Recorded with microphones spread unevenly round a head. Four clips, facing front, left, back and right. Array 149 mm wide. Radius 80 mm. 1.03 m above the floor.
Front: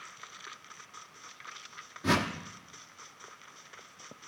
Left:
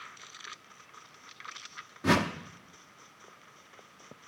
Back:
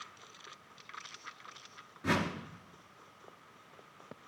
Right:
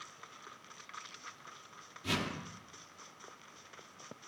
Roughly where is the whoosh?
Left.